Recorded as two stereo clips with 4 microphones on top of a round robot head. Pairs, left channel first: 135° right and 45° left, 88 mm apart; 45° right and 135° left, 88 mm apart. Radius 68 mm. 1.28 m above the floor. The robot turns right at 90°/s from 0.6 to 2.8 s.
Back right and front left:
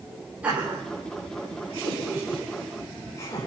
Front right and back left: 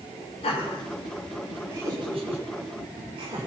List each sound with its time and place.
0.4 s laughter: 30° right, 4.5 m; by 3.5 s 165° left, 4.5 m